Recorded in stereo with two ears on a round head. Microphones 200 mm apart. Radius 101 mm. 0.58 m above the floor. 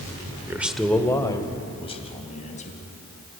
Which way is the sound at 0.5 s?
15° right (ahead or behind).